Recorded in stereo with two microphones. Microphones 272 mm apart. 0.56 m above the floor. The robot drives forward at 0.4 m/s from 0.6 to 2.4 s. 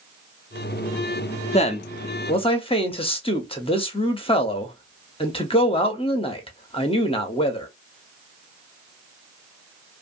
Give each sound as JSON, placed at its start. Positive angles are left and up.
{"t": 1.5, "sound": "a man speaking", "side_deg": 25, "distance_m": 0.6}